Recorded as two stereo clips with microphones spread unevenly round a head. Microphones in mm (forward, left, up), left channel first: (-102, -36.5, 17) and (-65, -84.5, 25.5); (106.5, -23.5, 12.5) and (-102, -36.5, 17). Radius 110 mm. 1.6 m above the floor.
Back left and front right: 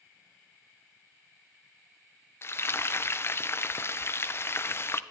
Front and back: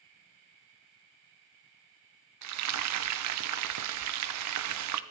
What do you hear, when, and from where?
2.4 s frying: straight behind, 0.7 m